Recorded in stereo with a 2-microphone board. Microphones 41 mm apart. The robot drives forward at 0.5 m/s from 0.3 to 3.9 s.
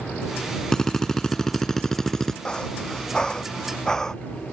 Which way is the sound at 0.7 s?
15° left (ahead or behind).